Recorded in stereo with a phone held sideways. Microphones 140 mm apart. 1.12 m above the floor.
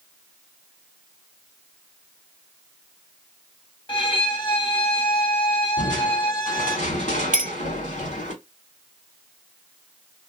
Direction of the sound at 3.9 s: 35° left (ahead or behind).